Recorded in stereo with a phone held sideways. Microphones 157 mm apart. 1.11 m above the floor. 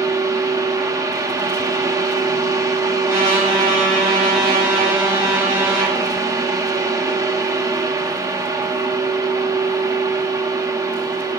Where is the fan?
20° right (ahead or behind), 1.2 m.